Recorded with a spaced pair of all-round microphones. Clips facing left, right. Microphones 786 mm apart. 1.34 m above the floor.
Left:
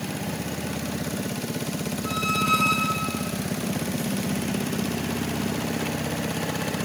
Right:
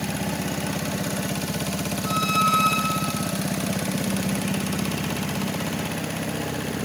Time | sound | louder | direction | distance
2.0 | a squeak | right 1 dB | 30° left (ahead or behind) | 3 m